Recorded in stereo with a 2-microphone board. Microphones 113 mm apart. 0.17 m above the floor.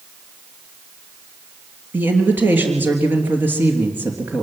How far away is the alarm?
No alarm in this recording.